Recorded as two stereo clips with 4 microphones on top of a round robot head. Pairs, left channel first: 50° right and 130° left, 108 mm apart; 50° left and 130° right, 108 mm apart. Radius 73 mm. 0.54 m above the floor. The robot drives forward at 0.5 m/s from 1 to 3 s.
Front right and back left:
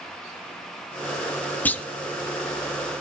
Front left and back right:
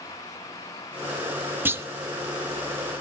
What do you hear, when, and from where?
1.6 s a clunk: 95° right, 1.0 m; by 1.9 s 110° right, 1.0 m